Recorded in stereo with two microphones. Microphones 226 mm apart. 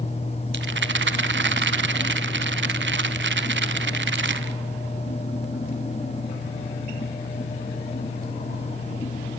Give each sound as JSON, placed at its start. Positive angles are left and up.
{"t": 0.5, "sound": "a rattle", "side_deg": -55, "distance_m": 0.7}